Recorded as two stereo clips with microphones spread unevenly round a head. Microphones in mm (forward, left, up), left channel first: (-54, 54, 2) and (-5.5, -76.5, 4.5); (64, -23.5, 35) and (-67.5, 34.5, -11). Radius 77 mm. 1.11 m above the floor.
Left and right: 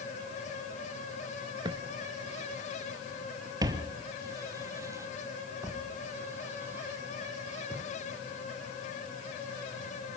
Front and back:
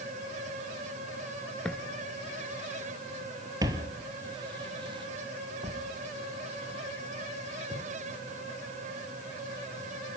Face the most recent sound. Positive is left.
turn(degrees=-145)